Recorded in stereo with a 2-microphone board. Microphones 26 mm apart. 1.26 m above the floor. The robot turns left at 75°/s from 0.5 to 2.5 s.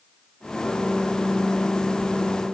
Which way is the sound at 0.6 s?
105° left.